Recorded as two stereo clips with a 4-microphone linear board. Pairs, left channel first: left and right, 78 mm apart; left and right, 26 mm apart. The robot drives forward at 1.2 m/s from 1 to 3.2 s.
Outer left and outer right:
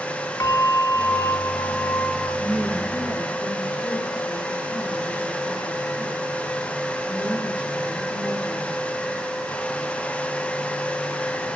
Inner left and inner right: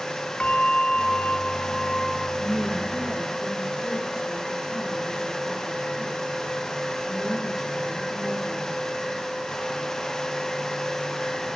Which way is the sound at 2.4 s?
25° right (ahead or behind).